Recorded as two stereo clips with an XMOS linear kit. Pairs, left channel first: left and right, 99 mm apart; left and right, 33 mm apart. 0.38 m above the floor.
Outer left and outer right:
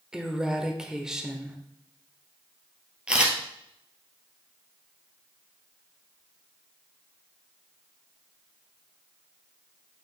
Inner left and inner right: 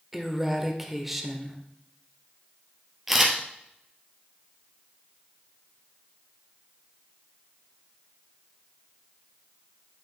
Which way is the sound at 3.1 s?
10° right (ahead or behind).